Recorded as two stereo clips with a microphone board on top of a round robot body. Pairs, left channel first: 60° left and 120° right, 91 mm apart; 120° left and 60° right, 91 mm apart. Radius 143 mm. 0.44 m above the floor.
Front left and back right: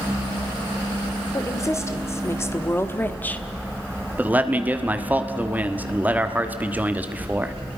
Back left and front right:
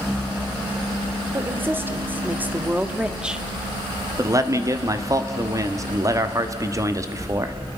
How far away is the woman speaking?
About 2 m.